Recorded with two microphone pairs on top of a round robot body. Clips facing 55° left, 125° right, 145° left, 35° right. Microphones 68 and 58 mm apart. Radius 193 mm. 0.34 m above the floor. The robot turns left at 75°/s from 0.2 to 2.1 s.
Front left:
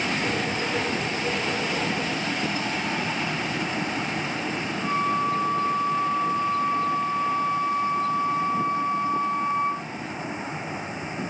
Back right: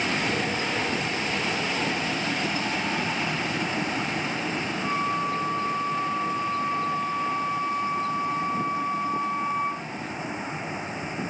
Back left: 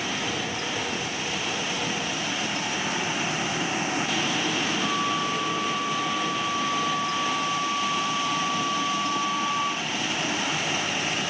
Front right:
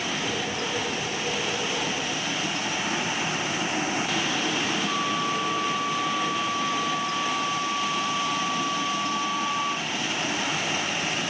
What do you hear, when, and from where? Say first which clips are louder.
4.8 s a flute: front left 4 dB, even; 145° left, 3 m